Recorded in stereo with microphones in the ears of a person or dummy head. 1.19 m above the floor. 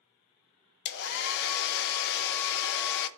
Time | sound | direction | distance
0.8 | a hair dryer | 60° left (ahead or behind) | 0.6 m